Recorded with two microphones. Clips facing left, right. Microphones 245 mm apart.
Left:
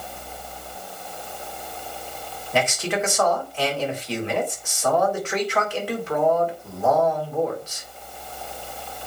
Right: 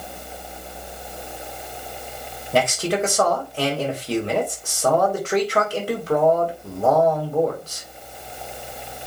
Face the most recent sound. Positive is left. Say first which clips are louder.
# right 3 dB
turn(degrees=-40)  # may be behind; listen again after turning